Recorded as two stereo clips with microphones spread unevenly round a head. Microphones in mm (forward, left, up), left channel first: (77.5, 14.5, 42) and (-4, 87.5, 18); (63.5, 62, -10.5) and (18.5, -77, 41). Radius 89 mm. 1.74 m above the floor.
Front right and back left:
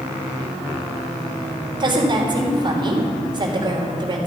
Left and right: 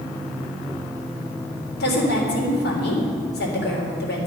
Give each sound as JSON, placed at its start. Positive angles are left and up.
{"t": 1.8, "sound": "a woman speaking", "azimuth_deg": 90, "distance_m": 3.5}